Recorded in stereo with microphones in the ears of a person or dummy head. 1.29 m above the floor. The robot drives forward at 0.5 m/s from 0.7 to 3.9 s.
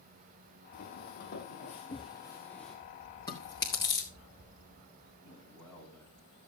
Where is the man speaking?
10° left (ahead or behind), 9 m.